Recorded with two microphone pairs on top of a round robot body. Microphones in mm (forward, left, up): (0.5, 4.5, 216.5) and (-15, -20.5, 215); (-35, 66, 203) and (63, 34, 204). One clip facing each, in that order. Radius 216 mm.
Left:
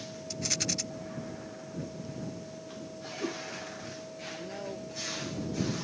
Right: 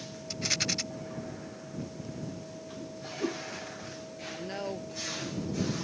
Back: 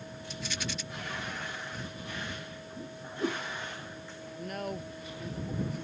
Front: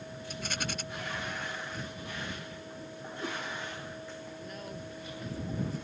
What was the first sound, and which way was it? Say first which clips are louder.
A rattle: right 3 dB, front 1 dB; 60° right.